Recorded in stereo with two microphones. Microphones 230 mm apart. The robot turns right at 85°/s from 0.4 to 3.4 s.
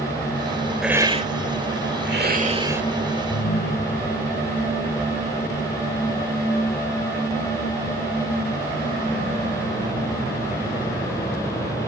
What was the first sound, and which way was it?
A hiss, straight behind.